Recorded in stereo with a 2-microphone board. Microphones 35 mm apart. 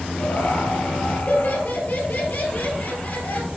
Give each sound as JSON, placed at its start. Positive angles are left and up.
{"t": 0.2, "sound": "laughter", "side_deg": 55, "distance_m": 2.5}